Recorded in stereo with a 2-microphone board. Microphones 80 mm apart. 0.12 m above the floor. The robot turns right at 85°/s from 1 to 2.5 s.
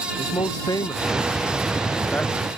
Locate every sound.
0.2 s a man speaking: 55° left (ahead or behind); by 2.5 s 5° right (ahead or behind)